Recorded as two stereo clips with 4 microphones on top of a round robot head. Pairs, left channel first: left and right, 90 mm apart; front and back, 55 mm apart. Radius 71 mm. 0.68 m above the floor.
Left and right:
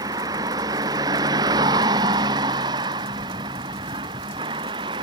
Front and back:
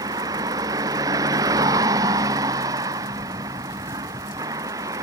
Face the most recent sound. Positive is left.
turn(degrees=-140)